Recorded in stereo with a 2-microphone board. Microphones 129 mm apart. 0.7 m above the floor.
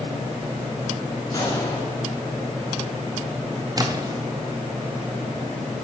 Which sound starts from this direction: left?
A gunshot, at 1.3 s.